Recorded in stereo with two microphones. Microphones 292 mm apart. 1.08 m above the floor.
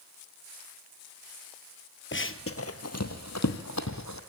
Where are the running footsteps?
40° left (ahead or behind), 1.6 m; by 4.2 s 70° left (ahead or behind), 3 m.